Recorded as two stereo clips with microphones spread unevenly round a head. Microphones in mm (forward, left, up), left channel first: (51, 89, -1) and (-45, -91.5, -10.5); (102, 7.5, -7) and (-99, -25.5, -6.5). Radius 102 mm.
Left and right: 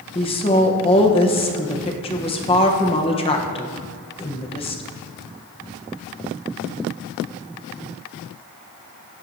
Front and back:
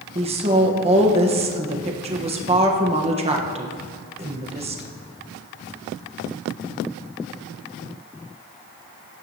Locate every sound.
0.1 s a woman speaking: 125° left, 1.3 m